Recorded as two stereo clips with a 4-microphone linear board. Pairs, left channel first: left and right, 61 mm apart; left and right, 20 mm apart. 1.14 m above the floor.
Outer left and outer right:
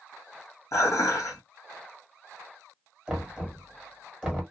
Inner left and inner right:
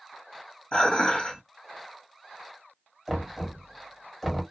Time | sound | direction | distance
0.7 | dishes clattering | 60° left (ahead or behind) | 1.4 m
3.1 | knocking | 10° right (ahead or behind) | 1.4 m